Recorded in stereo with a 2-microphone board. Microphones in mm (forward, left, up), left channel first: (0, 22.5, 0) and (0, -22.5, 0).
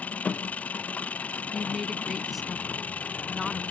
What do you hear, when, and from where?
0.0 s an engine running: 35° left (ahead or behind)
1.5 s a woman speaking: centre (ahead or behind)